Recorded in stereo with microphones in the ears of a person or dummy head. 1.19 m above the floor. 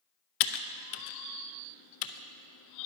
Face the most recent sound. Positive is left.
turn(degrees=75)  # may be behind; listen again after turning